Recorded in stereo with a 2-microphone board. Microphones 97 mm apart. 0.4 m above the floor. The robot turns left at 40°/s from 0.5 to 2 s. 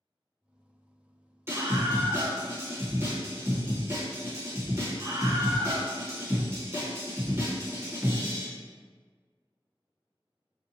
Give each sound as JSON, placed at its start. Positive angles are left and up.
{"t": 1.5, "sound": "a scream", "side_deg": -25, "distance_m": 1.0}